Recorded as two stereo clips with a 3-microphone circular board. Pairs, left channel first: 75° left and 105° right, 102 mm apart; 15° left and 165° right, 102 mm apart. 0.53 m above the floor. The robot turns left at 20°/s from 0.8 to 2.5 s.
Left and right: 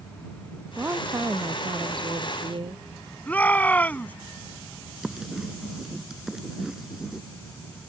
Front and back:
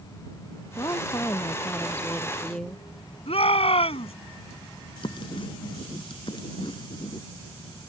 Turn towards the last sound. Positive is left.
turn(degrees=-20)